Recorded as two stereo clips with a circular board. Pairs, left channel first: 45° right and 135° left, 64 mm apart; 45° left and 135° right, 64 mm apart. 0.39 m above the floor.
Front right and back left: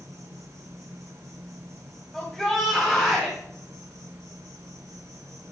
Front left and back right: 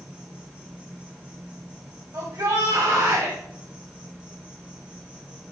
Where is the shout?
130° right, 2 m.